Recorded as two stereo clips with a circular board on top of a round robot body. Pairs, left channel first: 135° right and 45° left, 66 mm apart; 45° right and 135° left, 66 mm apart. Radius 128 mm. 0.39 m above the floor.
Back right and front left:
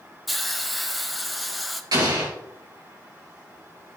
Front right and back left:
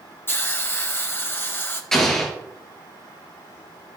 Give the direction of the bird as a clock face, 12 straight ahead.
No bird in this recording.